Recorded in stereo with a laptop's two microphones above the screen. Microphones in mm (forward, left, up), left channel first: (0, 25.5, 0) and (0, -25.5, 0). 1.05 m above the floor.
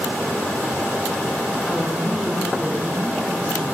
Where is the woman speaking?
5° left (ahead or behind), 1.7 m; by 3.7 s 20° right (ahead or behind), 2.5 m.